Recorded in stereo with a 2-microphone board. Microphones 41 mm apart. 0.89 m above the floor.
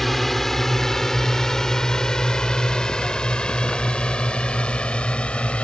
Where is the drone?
5° left (ahead or behind); by 5.7 s 30° left (ahead or behind).